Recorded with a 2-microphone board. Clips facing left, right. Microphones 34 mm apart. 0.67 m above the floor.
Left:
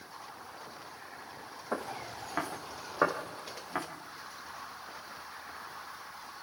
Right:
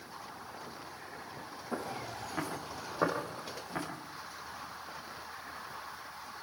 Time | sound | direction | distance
1.7 | footsteps | 40° left (ahead or behind) | 4 m